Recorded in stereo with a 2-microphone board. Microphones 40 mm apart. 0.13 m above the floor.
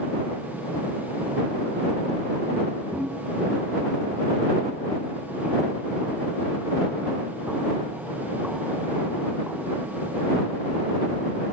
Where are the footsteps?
15° right (ahead or behind); by 9.9 s 35° right (ahead or behind).